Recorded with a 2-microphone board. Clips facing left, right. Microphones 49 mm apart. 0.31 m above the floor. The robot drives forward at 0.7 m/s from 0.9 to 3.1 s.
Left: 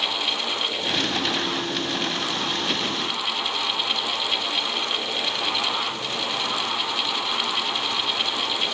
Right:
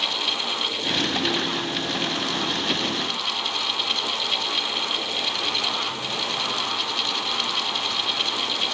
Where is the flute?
No flute in this recording.